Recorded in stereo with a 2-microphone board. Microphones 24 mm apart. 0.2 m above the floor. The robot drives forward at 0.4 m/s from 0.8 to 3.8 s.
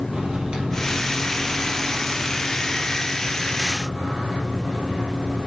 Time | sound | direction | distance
0.1 | a microwave | 35° right (ahead or behind) | 3.5 m